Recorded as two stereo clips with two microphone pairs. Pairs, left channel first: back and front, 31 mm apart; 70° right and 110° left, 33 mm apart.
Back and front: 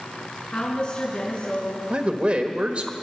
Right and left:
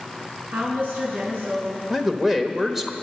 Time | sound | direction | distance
0.5 | a woman speaking | 120° left | 5 m
1.9 | a man speaking | 25° left | 1.2 m